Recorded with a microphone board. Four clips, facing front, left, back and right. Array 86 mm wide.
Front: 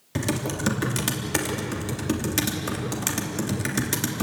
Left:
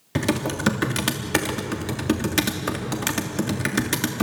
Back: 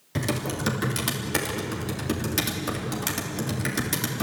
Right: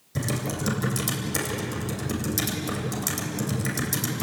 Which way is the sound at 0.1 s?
85° left.